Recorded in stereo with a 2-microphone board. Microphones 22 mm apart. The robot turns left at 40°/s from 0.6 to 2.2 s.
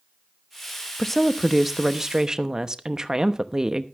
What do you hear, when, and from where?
1.0 s a woman speaking: 15° left, 0.9 m; by 3.9 s 30° right, 0.9 m